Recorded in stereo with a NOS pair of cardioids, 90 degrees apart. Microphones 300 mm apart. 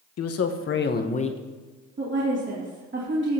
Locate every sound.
0.2 s a man speaking: 60° left, 1.2 m; by 1.4 s 20° left, 1.1 m
2.0 s a woman speaking: 40° right, 3 m